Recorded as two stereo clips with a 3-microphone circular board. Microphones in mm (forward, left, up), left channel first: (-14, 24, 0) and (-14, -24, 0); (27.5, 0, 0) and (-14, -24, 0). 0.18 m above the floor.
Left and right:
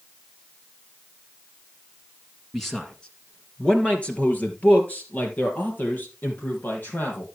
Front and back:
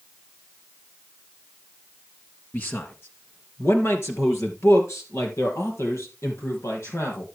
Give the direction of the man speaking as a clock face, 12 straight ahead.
12 o'clock.